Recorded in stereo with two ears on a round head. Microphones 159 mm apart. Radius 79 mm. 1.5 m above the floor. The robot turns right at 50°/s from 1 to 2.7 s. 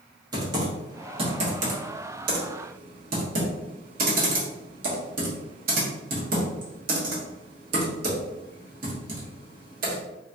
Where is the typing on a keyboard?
25° right (ahead or behind), 1.1 m; by 10.0 s 50° right (ahead or behind), 1.1 m.